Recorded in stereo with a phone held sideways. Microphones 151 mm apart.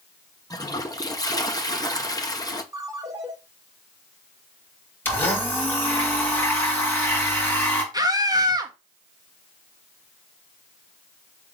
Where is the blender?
15° left (ahead or behind), 2.5 m.